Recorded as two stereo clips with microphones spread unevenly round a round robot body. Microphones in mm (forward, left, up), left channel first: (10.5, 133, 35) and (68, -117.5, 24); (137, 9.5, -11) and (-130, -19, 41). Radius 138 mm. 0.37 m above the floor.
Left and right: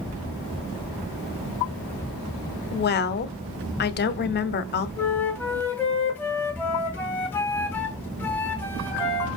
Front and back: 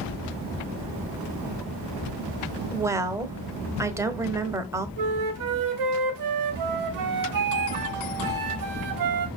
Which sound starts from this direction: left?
A woman speaking, at 2.7 s.